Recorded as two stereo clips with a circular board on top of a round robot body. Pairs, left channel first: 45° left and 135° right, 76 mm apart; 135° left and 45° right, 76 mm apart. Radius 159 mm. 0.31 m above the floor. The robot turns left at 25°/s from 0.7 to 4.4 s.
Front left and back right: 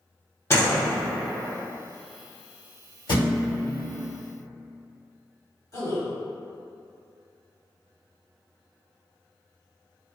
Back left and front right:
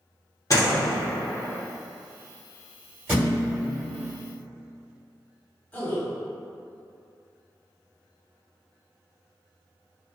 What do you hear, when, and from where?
0.5 s a door slam: 95° left, 1.7 m; by 0.9 s 90° left, 1.7 m
3.1 s a thud: 30° left, 1.5 m; by 3.7 s 15° left, 1.5 m
5.7 s a man speaking: 70° left, 1.5 m